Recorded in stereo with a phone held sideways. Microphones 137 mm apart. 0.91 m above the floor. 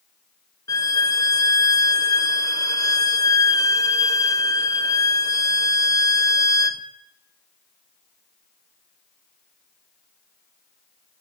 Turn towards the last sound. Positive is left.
turn(degrees=25)  # may be behind; listen again after turning